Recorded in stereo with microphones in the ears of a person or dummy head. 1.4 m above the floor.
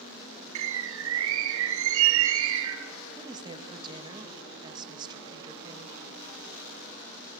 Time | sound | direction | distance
0.6 | a bird | 70° right (ahead or behind) | 1.1 m
3.2 | a woman speaking | 25° right (ahead or behind) | 2.0 m